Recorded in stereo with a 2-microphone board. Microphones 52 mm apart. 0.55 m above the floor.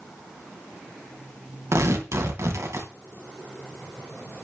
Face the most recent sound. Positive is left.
turn(degrees=-60)  # may be behind; listen again after turning